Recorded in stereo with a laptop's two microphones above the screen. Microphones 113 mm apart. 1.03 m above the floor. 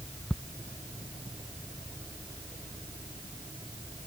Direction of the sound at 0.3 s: 5° left (ahead or behind).